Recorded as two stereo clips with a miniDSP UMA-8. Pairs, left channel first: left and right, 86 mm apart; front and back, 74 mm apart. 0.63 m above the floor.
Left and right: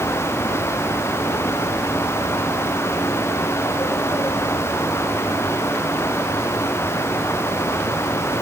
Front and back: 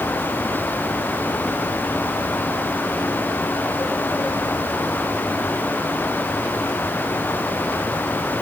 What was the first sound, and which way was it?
Only background noise.